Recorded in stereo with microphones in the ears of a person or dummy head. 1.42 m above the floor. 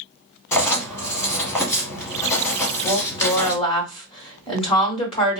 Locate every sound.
0.5 s writing: 15° left (ahead or behind), 1.2 m
2.8 s a woman speaking: 20° left (ahead or behind), 1.4 m